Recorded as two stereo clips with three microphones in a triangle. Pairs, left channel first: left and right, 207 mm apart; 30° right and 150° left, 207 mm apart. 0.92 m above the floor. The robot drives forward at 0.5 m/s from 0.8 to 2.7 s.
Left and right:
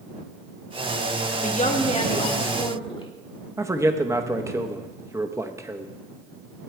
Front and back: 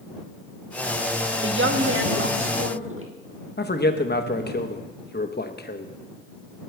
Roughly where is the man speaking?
Ahead.